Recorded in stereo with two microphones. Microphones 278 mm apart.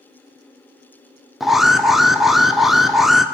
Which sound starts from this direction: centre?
An alarm, at 1.4 s.